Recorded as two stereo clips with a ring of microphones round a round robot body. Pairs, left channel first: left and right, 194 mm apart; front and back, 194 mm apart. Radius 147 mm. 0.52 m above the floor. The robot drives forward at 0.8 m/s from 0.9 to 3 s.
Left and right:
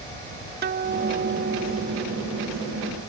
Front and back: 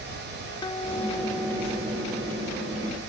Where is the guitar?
70° right; by 2.7 s 140° right.